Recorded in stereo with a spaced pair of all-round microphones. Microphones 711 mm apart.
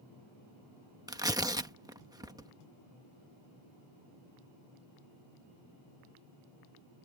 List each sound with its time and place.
1.1 s tearing paper: 5° right (ahead or behind)